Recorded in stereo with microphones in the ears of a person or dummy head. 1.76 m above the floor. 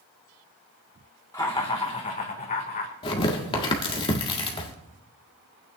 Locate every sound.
1.3 s laughter: 15° left (ahead or behind), 1.9 m; by 2.9 s 45° left (ahead or behind), 2.5 m
3.0 s tearing paper: 30° left (ahead or behind), 1.6 m